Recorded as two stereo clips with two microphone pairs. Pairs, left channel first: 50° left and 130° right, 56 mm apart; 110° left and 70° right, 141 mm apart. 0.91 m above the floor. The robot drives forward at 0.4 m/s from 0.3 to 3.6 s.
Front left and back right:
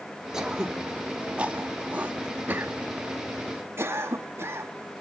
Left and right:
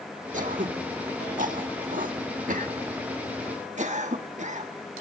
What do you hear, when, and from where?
0.3 s throat clearing: 50° right, 2 m; by 4.7 s 95° right, 1.6 m